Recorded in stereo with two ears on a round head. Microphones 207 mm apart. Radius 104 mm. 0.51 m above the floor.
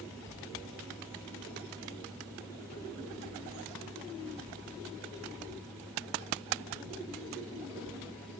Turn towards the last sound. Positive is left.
No sound to turn to.